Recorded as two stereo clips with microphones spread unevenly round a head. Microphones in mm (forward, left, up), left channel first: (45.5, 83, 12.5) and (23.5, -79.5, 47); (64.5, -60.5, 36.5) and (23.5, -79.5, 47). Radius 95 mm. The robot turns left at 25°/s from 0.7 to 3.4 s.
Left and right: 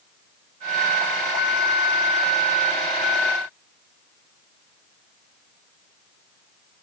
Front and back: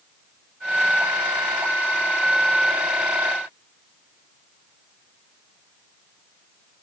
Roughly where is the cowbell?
I don't hear a cowbell.